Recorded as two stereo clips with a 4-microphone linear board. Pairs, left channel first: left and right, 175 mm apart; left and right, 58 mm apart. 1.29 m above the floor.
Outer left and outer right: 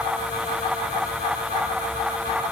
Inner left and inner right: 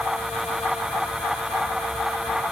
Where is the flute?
No flute in this recording.